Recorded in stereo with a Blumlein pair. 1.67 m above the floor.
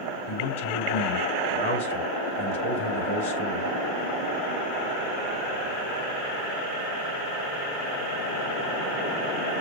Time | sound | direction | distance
0.3 | a man speaking | 65° left | 4 m